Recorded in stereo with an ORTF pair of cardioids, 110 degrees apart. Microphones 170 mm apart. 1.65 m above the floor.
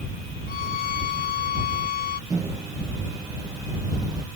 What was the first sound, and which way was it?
A violin, 60° left.